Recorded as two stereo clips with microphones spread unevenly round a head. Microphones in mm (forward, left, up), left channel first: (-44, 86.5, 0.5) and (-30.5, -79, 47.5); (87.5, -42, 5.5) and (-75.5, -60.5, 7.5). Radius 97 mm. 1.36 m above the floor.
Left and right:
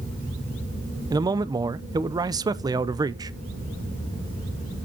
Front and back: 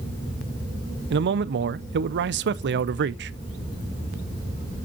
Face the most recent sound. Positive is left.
turn(degrees=-155)